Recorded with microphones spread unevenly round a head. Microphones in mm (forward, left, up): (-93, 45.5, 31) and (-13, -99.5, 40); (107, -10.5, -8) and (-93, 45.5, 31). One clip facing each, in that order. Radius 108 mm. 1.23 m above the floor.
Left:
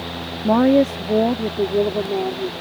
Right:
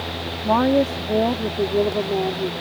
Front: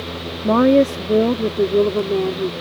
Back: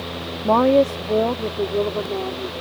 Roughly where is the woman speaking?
Ahead left.